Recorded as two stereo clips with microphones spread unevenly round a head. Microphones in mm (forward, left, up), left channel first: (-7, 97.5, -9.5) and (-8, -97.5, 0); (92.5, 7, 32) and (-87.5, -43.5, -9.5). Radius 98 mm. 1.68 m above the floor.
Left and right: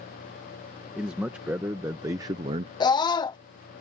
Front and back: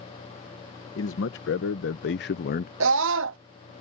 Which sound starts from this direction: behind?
A scream, at 2.8 s.